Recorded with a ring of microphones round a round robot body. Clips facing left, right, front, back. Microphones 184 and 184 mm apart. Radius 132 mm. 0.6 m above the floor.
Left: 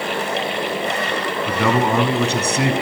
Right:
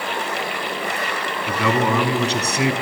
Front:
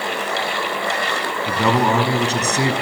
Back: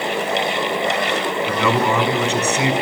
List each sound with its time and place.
1.5 s a man speaking: 50° left, 5.5 m